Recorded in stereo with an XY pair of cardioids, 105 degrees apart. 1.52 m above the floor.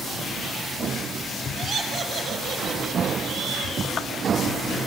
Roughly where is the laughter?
Ahead right.